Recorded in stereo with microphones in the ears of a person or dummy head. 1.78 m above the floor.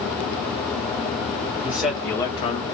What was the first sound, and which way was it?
A man speaking, 5° right (ahead or behind).